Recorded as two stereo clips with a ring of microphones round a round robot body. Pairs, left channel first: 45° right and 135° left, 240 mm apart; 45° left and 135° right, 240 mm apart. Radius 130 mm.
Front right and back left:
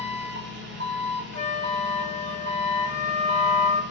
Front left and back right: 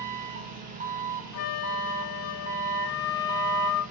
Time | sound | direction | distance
0.0 | an engine running | 175° left | 1.1 m
1.3 | a flute | 15° left | 0.8 m